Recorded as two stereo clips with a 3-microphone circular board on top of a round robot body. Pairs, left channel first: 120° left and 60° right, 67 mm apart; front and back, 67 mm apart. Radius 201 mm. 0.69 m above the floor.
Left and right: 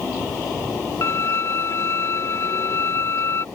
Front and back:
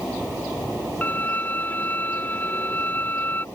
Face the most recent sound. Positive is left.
turn(degrees=65)